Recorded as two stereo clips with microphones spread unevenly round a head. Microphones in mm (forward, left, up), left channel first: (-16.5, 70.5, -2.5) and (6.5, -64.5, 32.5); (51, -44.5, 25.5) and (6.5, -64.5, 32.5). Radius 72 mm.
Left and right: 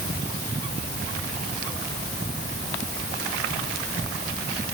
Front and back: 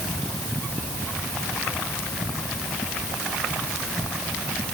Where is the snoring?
No snoring in this recording.